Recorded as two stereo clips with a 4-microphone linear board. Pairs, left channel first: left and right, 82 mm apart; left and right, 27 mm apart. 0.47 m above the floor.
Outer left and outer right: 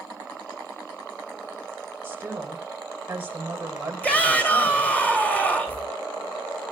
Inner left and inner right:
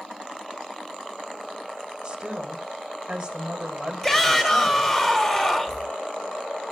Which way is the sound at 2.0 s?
25° right (ahead or behind).